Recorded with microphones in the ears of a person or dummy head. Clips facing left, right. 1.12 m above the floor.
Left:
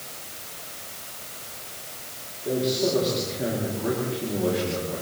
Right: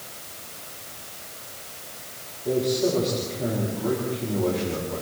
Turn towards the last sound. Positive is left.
turn(degrees=5)  # may be behind; listen again after turning